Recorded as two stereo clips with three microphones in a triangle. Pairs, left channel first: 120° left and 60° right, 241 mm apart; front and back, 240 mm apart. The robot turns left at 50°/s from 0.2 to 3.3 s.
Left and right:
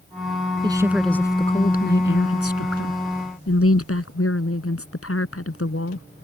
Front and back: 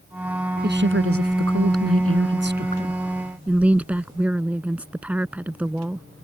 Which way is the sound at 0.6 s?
130° right.